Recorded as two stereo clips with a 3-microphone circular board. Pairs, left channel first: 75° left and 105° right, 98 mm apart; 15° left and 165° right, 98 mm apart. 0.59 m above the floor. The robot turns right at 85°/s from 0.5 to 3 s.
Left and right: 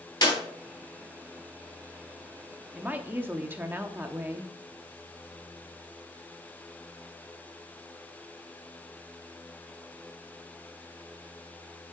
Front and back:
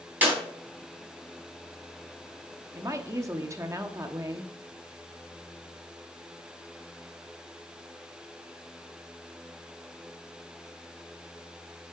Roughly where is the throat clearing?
I don't hear throat clearing.